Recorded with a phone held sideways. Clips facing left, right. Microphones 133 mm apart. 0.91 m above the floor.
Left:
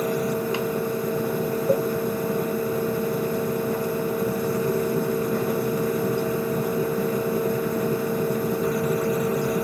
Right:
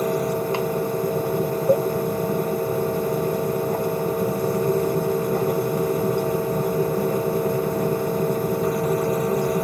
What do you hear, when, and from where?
0.0 s a fan: 45° right (ahead or behind), 1.1 m